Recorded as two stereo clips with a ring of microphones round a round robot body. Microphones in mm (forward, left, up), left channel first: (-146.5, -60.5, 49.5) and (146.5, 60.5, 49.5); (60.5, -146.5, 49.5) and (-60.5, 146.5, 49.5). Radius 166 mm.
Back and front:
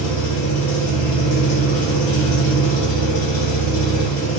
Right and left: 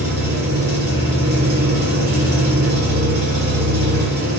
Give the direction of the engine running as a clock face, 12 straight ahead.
6 o'clock.